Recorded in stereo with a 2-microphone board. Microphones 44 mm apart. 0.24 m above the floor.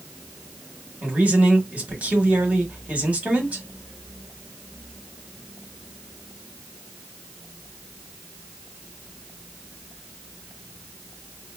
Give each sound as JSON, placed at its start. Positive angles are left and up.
{"t": 1.0, "sound": "a man speaking", "side_deg": -35, "distance_m": 1.1}